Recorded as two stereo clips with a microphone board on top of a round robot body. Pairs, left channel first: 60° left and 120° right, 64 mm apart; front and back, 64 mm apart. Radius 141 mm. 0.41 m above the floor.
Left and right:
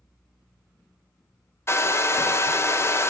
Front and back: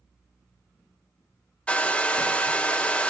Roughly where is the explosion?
No explosion in this recording.